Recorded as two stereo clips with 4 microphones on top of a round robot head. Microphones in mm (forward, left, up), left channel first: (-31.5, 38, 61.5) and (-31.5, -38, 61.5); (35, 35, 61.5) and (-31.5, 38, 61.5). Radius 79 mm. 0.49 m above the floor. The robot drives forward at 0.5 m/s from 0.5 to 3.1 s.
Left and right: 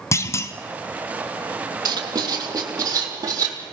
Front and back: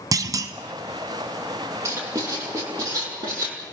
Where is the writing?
125° right, 3 m; by 3.6 s 135° right, 3.5 m.